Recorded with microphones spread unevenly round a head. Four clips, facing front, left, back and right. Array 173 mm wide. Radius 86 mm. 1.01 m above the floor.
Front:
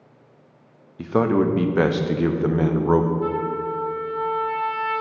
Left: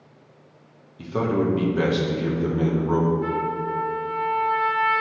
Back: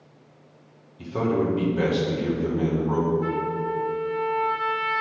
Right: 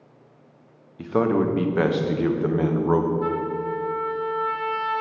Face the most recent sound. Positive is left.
turn(degrees=-75)